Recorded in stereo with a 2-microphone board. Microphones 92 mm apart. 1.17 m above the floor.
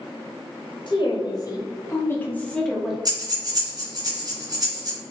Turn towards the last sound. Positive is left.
turn(degrees=-40)  # may be behind; listen again after turning